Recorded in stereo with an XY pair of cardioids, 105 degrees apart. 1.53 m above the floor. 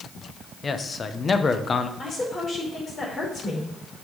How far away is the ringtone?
I don't hear a ringtone.